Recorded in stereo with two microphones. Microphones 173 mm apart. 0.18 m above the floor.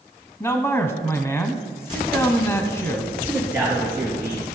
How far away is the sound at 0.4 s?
About 1.1 m.